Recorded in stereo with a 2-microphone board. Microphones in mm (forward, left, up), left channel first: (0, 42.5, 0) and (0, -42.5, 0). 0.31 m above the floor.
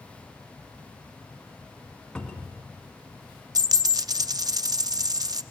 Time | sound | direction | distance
2.1 | a cupboard door | 10° left (ahead or behind) | 2 m
3.5 | a dropped coin | 45° right (ahead or behind) | 0.5 m